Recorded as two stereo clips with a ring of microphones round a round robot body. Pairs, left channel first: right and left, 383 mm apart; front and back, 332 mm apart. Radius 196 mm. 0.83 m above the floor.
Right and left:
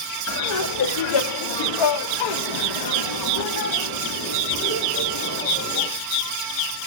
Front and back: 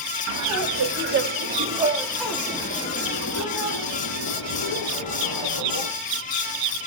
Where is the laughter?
140° right, 2 m; by 5.9 s 25° right, 3.5 m.